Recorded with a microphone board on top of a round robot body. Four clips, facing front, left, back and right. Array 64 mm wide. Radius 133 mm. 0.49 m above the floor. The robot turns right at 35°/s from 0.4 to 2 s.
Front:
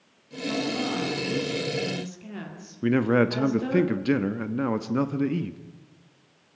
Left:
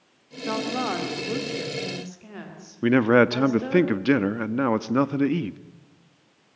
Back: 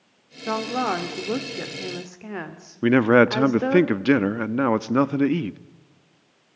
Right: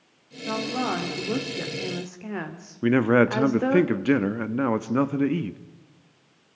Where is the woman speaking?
160° left, 2.5 m; by 3.8 s 145° right, 2.5 m.